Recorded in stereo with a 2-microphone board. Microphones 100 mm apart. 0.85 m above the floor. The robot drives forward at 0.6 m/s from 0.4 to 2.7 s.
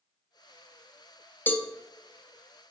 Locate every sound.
1.5 s a cowbell: 20° left (ahead or behind), 0.7 m; by 1.7 s 15° left (ahead or behind), 0.8 m